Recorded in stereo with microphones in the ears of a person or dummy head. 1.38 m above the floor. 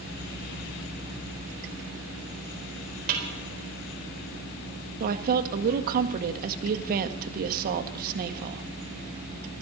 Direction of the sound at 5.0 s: 50° right (ahead or behind).